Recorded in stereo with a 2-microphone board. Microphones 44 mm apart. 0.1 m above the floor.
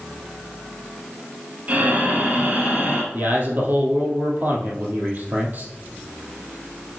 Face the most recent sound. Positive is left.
turn(degrees=-45)  # may be behind; listen again after turning